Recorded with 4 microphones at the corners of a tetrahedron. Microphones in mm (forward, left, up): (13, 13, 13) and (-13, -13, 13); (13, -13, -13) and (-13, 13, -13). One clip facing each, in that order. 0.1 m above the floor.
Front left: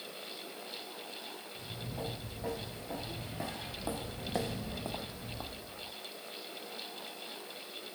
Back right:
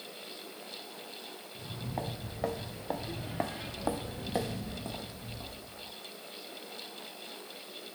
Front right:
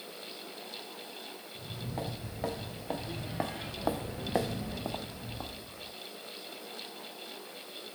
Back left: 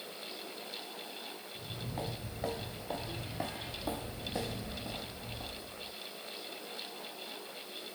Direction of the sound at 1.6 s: 120° right.